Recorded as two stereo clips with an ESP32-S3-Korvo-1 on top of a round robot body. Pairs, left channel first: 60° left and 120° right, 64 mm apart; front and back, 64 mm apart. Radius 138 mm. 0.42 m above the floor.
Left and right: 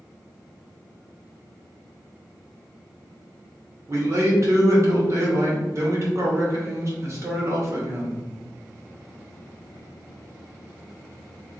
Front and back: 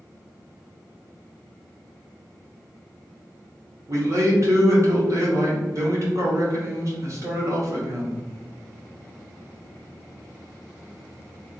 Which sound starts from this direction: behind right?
A man speaking, at 3.9 s.